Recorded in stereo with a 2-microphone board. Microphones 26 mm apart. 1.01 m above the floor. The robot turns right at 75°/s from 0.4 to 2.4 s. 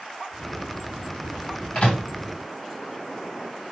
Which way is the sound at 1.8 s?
45° left (ahead or behind).